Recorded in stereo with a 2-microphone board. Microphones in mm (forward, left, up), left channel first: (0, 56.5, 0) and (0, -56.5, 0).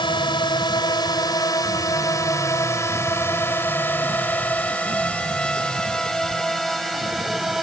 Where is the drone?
45° left (ahead or behind); by 7.6 s centre (ahead or behind).